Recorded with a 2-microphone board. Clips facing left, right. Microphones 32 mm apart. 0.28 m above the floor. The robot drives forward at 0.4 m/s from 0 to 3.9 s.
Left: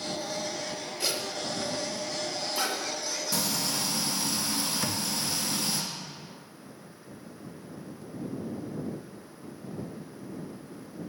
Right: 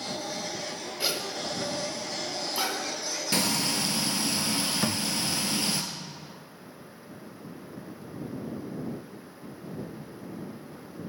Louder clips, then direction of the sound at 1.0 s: Right 1 dB; 20° right (ahead or behind).